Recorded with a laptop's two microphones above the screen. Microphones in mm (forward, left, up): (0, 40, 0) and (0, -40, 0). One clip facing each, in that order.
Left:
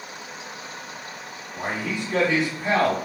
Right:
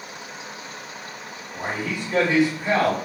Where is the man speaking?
10° right (ahead or behind), 1.7 m.